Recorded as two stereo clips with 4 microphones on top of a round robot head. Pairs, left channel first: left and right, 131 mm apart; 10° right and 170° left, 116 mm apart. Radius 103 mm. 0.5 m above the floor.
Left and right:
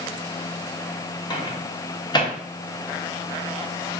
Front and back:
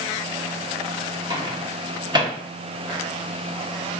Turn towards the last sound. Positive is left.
turn(degrees=135)